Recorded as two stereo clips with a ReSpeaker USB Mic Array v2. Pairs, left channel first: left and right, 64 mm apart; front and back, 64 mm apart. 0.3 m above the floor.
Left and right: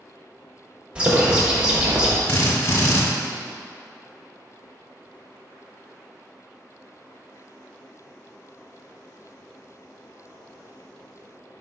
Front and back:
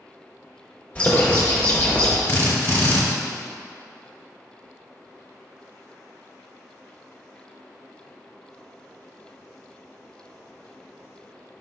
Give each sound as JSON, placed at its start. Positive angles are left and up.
{"t": 0.9, "sound": "a bird", "azimuth_deg": -35, "distance_m": 1.0}
{"t": 2.3, "sound": "a drill", "azimuth_deg": 55, "distance_m": 0.9}